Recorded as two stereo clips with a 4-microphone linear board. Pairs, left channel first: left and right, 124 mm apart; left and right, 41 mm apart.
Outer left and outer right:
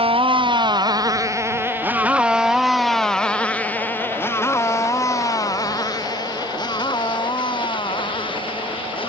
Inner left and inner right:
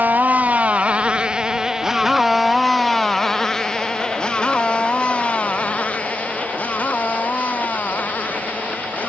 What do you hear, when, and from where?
0.0 s a motorcycle: 45° right (ahead or behind); by 9.1 s 40° left (ahead or behind)